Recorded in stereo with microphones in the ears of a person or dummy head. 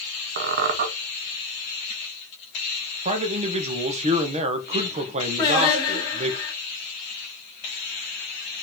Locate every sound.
0.4 s a squeak: 55° right (ahead or behind), 0.7 m
3.0 s a man speaking: 35° right (ahead or behind), 1.0 m
5.4 s singing: 20° left (ahead or behind), 2.5 m